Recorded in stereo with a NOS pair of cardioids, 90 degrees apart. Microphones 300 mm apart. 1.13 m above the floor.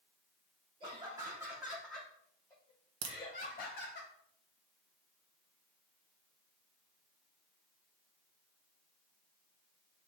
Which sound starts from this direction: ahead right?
A crack, at 3.0 s.